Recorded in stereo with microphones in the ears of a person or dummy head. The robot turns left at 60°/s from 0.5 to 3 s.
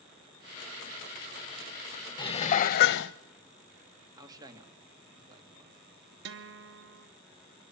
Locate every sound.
2.2 s dishes clattering: 155° left, 0.7 m; by 3.1 s 105° left, 0.7 m
4.2 s a man speaking: 20° right (ahead or behind), 3 m
6.2 s a guitar: 60° right (ahead or behind), 1.3 m